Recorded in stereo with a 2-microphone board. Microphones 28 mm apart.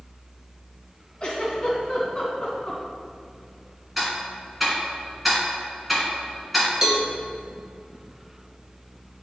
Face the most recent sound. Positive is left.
turn(degrees=-25)  # may be behind; listen again after turning